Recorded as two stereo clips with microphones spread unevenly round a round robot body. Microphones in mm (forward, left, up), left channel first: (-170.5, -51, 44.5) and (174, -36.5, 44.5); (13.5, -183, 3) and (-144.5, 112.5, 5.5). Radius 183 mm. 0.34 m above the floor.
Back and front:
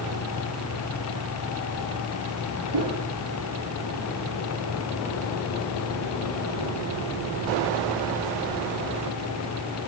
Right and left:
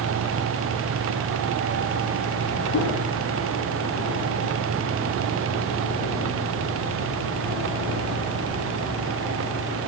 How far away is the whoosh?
About 9 m.